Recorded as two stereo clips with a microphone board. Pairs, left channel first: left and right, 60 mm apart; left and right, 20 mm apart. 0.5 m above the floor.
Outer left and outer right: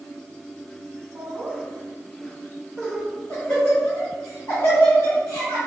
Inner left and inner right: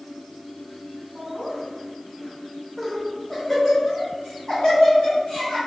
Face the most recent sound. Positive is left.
turn(degrees=60)  # may be behind; listen again after turning